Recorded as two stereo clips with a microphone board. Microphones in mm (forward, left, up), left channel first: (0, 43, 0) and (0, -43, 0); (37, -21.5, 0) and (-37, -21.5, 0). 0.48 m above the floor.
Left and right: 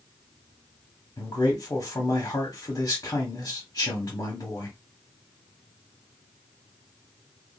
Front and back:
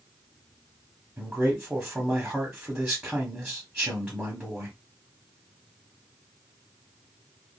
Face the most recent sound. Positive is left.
turn(degrees=110)